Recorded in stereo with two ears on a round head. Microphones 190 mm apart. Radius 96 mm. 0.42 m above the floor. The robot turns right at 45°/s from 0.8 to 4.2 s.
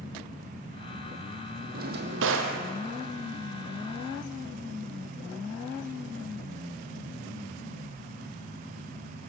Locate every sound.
1.7 s a drawer: 135° right, 3.5 m; by 2.6 s 100° right, 3.5 m